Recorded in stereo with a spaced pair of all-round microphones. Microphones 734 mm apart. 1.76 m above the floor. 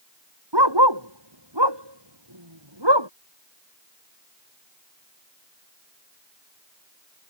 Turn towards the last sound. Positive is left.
turn(degrees=-35)  # may be behind; listen again after turning